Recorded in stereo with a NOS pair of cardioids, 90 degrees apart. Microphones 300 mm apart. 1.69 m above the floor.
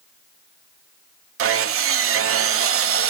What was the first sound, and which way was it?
Sawing, 50° right.